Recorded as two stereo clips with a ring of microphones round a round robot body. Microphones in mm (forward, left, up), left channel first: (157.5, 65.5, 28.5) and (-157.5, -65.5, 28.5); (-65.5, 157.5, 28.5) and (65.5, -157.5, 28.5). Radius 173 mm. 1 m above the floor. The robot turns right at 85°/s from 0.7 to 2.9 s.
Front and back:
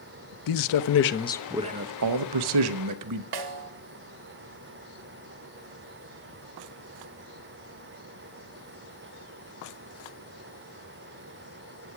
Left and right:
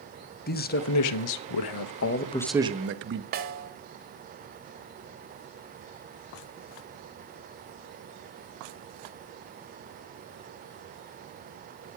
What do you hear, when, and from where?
0.5 s a man speaking: 50° left, 0.8 m; by 3.2 s 125° right, 0.8 m
3.3 s a snare drum: 130° right, 1.4 m